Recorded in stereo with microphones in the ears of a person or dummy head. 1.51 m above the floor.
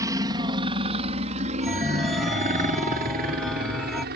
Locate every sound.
0.0 s a helicopter: 25° right (ahead or behind); by 4.2 s 55° right (ahead or behind)
1.6 s a chime: 5° right (ahead or behind)